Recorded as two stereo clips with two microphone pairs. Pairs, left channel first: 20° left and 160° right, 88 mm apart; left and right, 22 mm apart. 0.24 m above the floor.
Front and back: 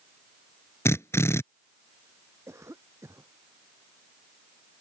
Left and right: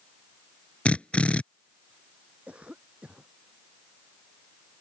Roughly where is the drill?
Left.